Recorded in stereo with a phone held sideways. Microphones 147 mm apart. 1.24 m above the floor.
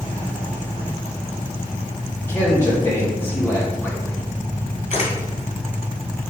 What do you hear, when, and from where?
2.3 s a man speaking: 15° left (ahead or behind), 2.5 m
4.9 s a camera shutter: 55° left (ahead or behind), 1.8 m